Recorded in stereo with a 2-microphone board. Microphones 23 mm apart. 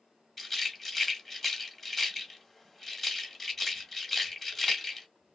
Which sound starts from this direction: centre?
A rattle, at 0.4 s.